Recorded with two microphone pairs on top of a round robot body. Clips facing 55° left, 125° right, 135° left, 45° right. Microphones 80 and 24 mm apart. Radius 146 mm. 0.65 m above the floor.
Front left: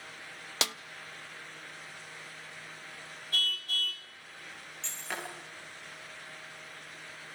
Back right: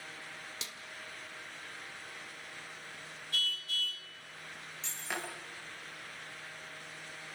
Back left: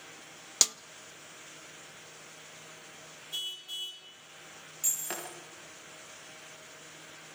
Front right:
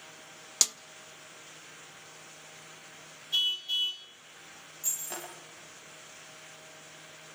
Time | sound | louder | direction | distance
0.6 | a snare drum | front left 13 dB, back left 1 dB | 50° left | 0.8 m
3.3 | a car horn | front left 3 dB, front right 9 dB | 15° left | 2.5 m
4.8 | breaking glass | front left 1 dB, back left 2 dB | 150° left | 8 m